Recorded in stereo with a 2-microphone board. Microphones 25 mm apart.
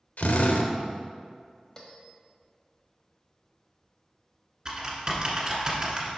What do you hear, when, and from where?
0.2 s a drill: 75° left (ahead or behind), 0.7 m
1.8 s a bell: 20° left (ahead or behind), 1.1 m
4.7 s typing on a keyboard: 30° right (ahead or behind), 1.6 m